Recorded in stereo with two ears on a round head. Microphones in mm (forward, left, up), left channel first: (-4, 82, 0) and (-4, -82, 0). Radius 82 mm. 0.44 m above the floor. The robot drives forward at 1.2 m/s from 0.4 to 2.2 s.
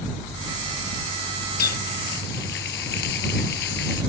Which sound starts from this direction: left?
A running tap, at 1.6 s.